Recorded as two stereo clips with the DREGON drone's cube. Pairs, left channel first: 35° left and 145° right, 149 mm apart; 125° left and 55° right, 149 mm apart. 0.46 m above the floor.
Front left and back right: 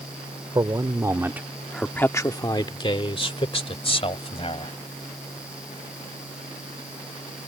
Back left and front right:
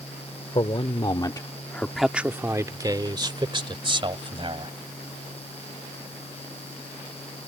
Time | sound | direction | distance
0.6 | a man speaking | 160° left | ?